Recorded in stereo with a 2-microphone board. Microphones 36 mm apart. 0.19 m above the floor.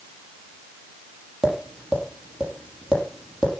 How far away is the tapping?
About 6.5 m.